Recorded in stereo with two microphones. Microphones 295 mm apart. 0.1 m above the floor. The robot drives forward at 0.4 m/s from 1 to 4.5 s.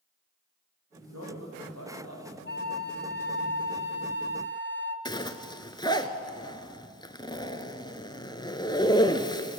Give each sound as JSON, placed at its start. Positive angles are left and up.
{"t": 1.1, "sound": "a man speaking", "side_deg": -60, "distance_m": 4.5}
{"t": 2.5, "sound": "a flute", "side_deg": 35, "distance_m": 2.0}
{"t": 5.0, "sound": "a zipper", "side_deg": 15, "distance_m": 1.0}